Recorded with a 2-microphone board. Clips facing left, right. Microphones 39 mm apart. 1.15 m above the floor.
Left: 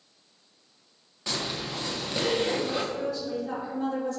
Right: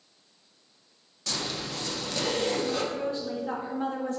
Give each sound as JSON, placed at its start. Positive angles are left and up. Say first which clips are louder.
{"t": 1.3, "sound": "a zipper", "louder": "left 1 dB", "side_deg": 25, "distance_m": 0.7}
{"t": 2.9, "sound": "a woman speaking", "louder": "left 1 dB", "side_deg": -30, "distance_m": 1.1}